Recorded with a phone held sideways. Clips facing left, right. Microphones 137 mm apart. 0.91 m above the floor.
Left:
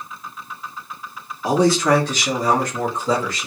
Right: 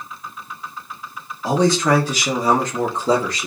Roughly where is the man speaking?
Centre.